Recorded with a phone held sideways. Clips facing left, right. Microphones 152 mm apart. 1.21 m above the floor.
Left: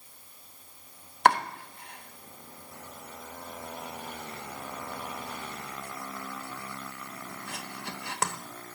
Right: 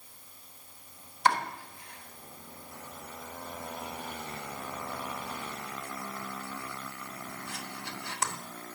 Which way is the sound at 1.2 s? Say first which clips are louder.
Left 4 dB; 65° left (ahead or behind).